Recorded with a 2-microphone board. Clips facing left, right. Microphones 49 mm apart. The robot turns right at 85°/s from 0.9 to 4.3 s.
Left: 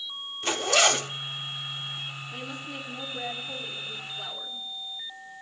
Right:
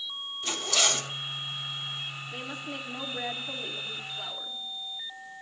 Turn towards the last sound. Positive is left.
turn(degrees=-5)